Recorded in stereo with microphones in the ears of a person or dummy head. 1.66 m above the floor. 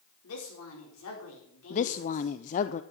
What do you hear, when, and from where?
0.2 s a woman speaking: 85° left, 4.5 m
1.7 s a woman speaking: 40° left (ahead or behind), 0.6 m